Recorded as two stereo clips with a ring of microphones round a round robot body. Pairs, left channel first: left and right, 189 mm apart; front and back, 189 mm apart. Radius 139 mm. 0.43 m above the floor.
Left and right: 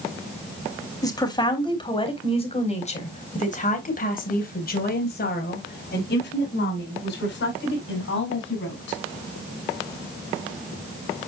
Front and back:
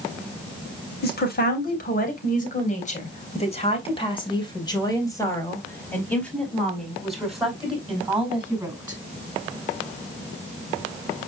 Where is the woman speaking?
25° left, 3.5 m; by 9.0 s 100° left, 5 m.